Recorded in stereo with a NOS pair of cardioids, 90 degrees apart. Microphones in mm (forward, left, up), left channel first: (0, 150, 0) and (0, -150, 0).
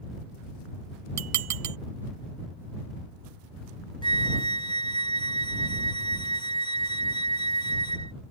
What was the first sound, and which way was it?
Dishes clattering, 60° right.